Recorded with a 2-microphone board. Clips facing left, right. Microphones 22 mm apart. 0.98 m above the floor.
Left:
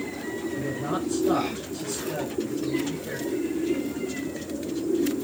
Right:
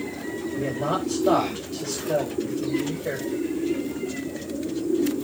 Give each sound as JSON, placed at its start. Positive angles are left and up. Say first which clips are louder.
{"t": 0.5, "sound": "a man speaking", "louder": "right 5 dB", "side_deg": -80, "distance_m": 5.0}